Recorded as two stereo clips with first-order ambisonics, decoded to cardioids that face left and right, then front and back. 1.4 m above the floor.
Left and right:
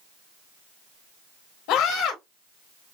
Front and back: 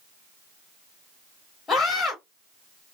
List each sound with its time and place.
1.7 s a scream: 75° left, 1.0 m